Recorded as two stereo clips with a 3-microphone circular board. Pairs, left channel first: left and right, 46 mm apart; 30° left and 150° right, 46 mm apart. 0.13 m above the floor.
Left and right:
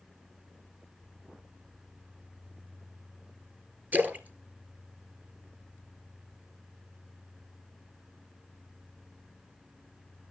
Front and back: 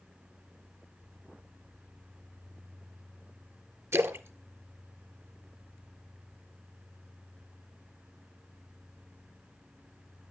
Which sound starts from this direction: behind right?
A splash, at 3.9 s.